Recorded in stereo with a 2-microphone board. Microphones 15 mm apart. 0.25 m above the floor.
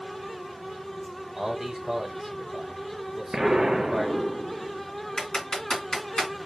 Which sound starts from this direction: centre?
A man speaking, at 1.4 s.